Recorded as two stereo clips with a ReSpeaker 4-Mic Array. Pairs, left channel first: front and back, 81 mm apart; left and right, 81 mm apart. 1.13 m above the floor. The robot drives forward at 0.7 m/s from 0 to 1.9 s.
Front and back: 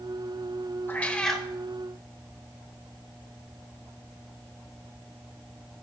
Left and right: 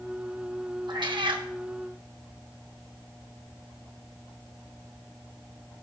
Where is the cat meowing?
65° right, 1.0 m; by 1.5 s 90° right, 0.9 m.